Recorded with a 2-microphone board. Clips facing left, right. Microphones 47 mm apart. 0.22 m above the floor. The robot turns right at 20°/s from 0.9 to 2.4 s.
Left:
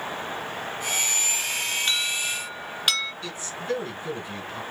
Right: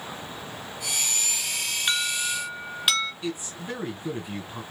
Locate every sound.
1.9 s an alarm: 10° right (ahead or behind), 2 m; by 3.1 s centre (ahead or behind), 2 m
3.2 s a man speaking: 20° right (ahead or behind), 2.0 m